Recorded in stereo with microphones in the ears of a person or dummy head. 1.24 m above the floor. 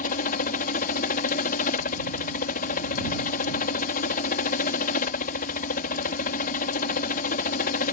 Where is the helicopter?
40° left (ahead or behind).